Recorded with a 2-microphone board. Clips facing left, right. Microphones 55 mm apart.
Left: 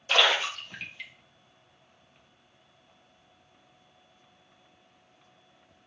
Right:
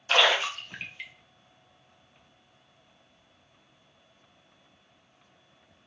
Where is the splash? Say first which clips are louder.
Right 1 dB; 20° right (ahead or behind), 0.6 m.